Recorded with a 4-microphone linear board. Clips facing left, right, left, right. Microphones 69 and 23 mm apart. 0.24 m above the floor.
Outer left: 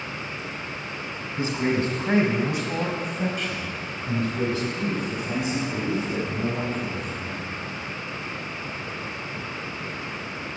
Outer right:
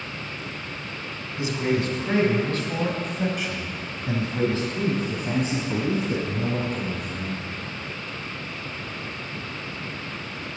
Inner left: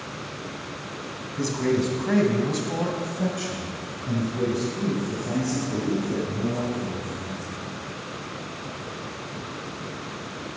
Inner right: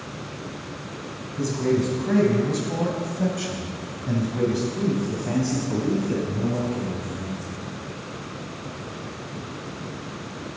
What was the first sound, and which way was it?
A man speaking, 35° left (ahead or behind).